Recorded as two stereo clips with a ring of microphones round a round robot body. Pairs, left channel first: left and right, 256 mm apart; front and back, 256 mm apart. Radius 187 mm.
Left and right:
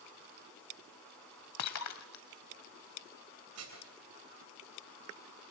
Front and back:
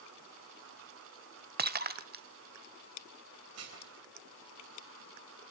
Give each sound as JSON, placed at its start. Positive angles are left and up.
{"t": 1.6, "sound": "breaking glass", "azimuth_deg": 130, "distance_m": 1.0}
{"t": 3.5, "sound": "dishes clattering", "azimuth_deg": -135, "distance_m": 3.0}